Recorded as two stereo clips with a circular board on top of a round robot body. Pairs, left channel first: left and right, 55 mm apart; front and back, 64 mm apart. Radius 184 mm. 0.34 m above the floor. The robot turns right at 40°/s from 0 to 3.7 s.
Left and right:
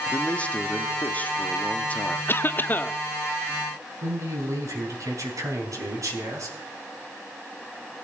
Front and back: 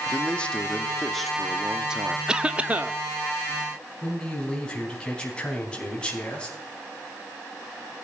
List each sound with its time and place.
0.1 s a man speaking: 40° left, 1.5 m; by 2.2 s 125° left, 1.5 m
2.3 s a cough: 105° left, 1.0 m; by 3.0 s 135° left, 1.0 m
4.0 s a man speaking: 75° right, 4.5 m